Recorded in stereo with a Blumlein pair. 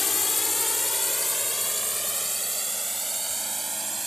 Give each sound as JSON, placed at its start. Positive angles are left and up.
{"t": 0.0, "sound": "a drone", "azimuth_deg": 10}